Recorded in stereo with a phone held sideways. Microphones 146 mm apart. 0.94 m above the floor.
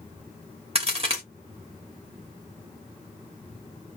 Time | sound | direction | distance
0.8 | a crack | 40° right (ahead or behind) | 2.0 m